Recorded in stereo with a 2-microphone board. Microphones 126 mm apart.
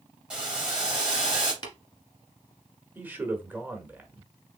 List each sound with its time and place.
0.3 s boiling: 10° right (ahead or behind), 3 m
1.6 s tapping: 35° left (ahead or behind), 1.5 m
3.0 s a man speaking: 15° right (ahead or behind), 1.4 m